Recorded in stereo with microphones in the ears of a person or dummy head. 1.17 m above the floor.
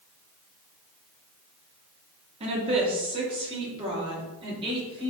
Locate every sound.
2.4 s a woman speaking: 30° right (ahead or behind), 3 m; by 5.1 s 25° right (ahead or behind), 4 m